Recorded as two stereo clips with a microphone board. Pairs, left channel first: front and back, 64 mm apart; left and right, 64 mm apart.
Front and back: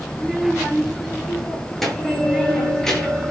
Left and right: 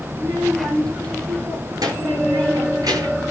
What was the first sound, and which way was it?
A child speaking, 95° right.